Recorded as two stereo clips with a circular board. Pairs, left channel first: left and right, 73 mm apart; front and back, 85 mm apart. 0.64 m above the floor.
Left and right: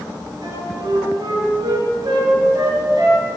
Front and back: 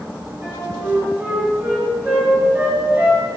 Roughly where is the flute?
Right.